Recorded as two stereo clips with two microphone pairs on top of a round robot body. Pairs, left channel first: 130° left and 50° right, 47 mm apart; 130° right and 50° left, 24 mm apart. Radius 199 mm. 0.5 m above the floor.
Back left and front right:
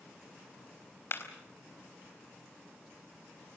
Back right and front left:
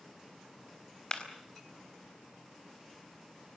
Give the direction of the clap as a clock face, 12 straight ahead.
6 o'clock.